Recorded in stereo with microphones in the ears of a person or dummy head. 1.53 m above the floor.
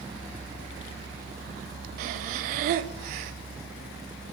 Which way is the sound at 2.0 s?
50° right (ahead or behind).